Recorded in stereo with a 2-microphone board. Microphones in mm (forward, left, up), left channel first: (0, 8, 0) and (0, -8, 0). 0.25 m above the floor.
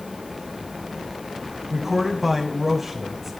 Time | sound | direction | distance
1.7 | a man speaking | 15° right (ahead or behind) | 1.9 m